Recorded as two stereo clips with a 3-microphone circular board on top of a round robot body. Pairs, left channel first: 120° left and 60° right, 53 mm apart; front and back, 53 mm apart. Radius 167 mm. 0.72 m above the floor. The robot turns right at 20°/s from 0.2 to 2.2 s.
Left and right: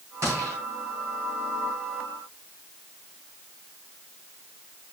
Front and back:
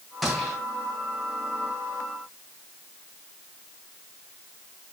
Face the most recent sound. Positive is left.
turn(degrees=-55)